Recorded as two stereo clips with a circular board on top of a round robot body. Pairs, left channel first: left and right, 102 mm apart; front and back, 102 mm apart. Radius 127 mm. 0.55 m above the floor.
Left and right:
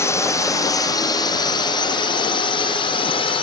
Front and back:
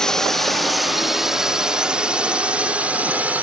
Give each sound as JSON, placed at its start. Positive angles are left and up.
{"t": 0.0, "sound": "a drone", "azimuth_deg": 80}